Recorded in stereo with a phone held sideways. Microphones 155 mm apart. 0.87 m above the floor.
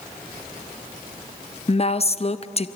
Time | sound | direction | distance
1.7 | a woman speaking | 40° left (ahead or behind) | 0.7 m